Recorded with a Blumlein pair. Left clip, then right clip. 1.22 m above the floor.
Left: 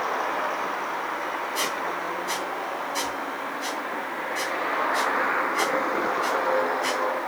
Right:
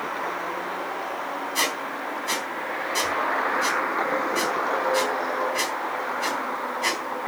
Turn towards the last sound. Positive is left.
turn(degrees=-15)